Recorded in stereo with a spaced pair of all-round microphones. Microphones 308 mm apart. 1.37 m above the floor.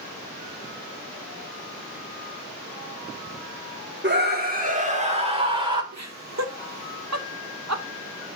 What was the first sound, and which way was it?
A scream, 35° right (ahead or behind).